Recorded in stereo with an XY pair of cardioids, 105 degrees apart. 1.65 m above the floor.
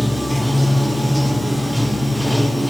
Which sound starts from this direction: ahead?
Running water, at 0.0 s.